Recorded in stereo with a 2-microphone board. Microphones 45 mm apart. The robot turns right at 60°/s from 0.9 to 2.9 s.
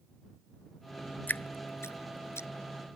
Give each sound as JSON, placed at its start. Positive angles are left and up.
{"t": 1.3, "sound": "dripping", "side_deg": 40}